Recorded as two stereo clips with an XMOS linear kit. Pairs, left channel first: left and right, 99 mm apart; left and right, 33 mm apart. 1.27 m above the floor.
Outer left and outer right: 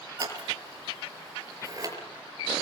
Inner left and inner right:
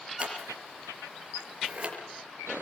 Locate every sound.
0.2 s scissors: 35° right (ahead or behind), 5.5 m